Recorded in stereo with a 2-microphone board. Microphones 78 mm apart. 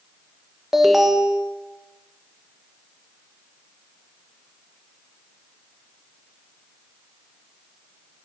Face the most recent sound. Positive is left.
turn(degrees=-5)  # may be behind; listen again after turning